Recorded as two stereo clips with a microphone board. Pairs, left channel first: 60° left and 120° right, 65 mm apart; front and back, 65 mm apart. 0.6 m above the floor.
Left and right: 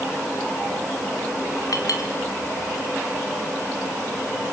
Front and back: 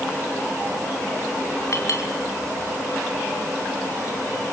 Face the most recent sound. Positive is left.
turn(degrees=40)